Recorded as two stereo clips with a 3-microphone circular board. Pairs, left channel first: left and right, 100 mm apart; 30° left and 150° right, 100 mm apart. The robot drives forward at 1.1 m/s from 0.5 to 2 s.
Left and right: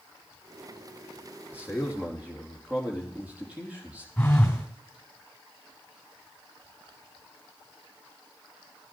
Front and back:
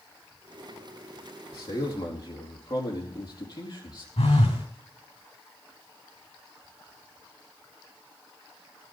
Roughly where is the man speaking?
Ahead.